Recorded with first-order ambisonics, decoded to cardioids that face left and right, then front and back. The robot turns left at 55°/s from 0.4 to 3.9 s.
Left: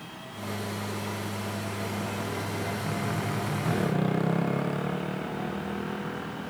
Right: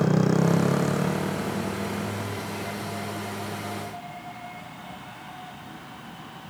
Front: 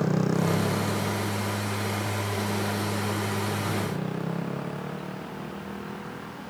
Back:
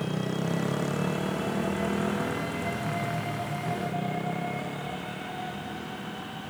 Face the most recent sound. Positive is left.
turn(degrees=80)